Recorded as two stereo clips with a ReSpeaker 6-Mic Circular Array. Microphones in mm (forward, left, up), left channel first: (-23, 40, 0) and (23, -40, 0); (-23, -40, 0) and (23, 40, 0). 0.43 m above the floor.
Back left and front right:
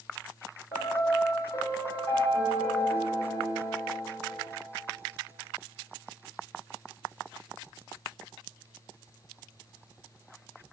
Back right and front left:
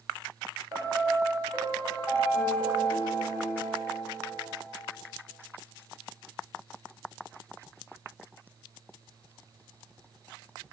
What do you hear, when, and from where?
0.7 s a piano: 130° left, 1.2 m